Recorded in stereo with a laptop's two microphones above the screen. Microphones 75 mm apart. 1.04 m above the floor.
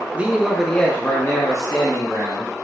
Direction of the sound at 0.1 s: 20° right (ahead or behind).